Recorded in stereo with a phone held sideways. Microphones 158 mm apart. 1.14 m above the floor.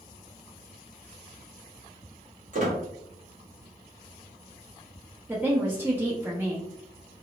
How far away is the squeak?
About 1.4 m.